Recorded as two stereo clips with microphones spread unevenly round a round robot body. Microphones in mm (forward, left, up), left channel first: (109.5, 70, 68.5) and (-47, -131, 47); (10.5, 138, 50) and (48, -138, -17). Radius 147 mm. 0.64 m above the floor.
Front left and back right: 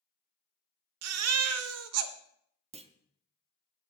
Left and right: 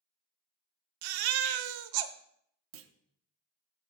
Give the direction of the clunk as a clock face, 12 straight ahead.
2 o'clock.